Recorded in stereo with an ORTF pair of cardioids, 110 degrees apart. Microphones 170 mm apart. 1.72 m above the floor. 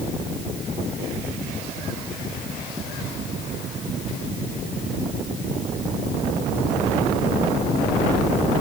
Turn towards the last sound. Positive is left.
No sound to turn to.